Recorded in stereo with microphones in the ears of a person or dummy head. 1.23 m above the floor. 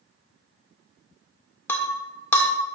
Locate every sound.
1.7 s breaking glass: 10° left (ahead or behind), 1.9 m